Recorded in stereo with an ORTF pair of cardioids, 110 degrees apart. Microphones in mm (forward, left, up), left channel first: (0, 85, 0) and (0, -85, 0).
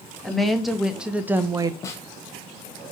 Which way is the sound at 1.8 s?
20° left.